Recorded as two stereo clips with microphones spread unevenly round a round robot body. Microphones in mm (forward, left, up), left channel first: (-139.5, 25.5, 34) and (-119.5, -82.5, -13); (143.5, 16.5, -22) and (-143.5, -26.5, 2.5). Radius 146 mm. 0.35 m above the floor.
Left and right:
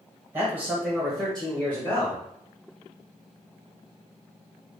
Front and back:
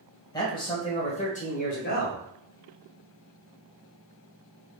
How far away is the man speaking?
About 1.3 m.